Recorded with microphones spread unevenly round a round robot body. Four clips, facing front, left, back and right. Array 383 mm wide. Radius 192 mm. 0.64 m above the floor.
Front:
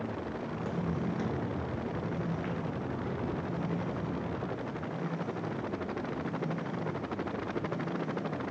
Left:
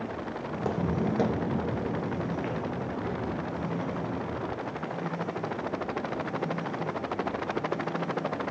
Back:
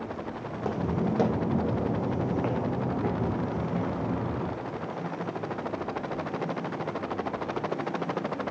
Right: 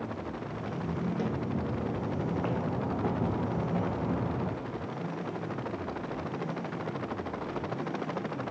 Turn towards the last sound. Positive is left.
turn(degrees=-140)